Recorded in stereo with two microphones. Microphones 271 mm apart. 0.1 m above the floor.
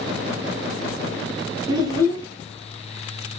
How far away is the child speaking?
About 1.7 m.